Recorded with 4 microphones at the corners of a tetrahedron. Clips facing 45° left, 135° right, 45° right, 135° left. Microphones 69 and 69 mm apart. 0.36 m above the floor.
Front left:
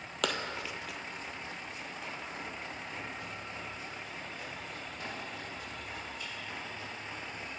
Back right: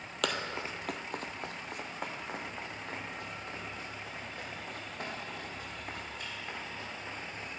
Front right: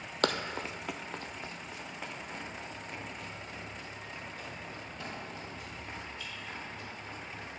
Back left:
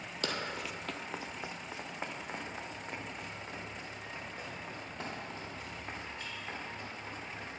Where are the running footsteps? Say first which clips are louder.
Even, front right 6 dB; 45° right, 0.7 m; by 7.6 s straight behind, 7 m.